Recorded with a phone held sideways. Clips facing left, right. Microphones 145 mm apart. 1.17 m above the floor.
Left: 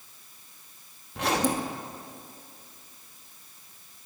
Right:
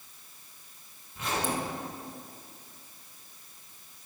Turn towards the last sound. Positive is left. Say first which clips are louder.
# left 5 dB
turn(degrees=80)